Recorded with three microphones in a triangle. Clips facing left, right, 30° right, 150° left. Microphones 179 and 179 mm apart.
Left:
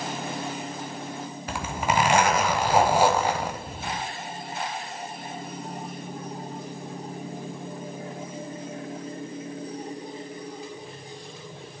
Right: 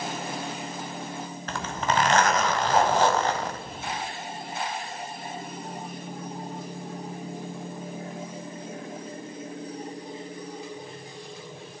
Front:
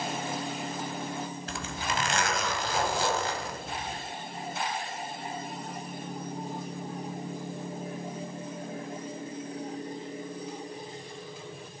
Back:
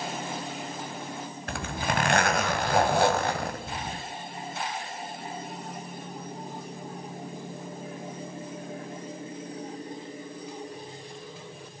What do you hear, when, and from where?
1.5 s a zipper: 170° left, 1.5 m